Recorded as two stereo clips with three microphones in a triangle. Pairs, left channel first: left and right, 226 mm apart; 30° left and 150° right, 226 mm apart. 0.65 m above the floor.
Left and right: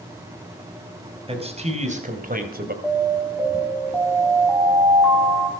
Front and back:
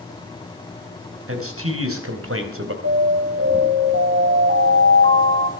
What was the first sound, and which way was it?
A man speaking, 155° right.